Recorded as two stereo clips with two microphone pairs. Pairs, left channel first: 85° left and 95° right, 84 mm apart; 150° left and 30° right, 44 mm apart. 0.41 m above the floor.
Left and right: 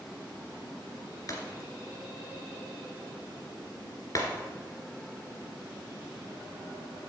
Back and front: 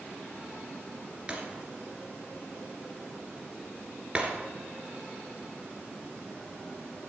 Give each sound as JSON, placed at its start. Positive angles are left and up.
{"t": 1.3, "sound": "breaking glass", "azimuth_deg": 40, "distance_m": 2.5}